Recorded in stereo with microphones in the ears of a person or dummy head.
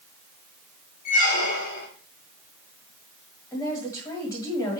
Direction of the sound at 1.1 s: 50° left (ahead or behind).